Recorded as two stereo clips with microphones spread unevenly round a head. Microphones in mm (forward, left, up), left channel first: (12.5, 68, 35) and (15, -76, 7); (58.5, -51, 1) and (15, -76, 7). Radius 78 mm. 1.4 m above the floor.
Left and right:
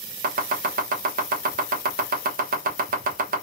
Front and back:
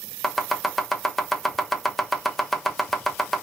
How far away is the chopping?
About 1.1 m.